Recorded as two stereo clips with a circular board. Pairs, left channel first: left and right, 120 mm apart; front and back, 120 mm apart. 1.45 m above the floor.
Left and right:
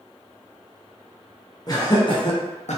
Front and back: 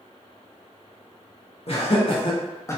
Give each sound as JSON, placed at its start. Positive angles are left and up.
{"t": 1.7, "sound": "laughter", "azimuth_deg": 30, "distance_m": 1.0}